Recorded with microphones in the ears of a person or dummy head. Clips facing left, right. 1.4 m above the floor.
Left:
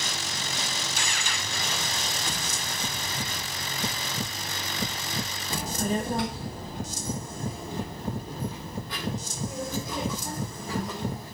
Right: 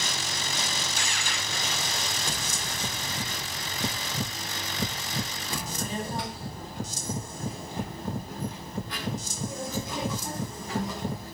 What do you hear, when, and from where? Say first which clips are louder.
5.5 s a child speaking: left 6 dB; 25° left (ahead or behind), 1.0 m; by 11.3 s 80° left, 5.5 m